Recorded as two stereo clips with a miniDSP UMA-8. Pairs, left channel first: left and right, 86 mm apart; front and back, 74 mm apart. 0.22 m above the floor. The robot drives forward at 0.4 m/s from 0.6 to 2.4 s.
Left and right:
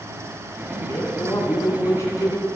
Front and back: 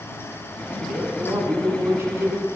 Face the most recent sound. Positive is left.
turn(degrees=140)